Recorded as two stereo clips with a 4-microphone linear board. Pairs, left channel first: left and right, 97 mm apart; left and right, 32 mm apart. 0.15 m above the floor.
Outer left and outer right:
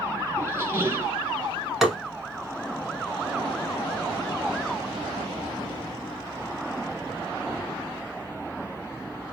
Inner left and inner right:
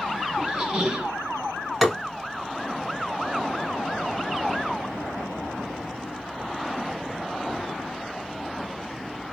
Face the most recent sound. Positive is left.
turn(degrees=-5)  # may be behind; listen again after turning